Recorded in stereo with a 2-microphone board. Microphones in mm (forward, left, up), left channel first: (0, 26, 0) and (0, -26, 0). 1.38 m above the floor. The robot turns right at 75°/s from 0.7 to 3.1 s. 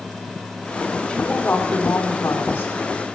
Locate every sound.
1.1 s a woman speaking: 5° left, 2.5 m; by 3.1 s 155° left, 2.5 m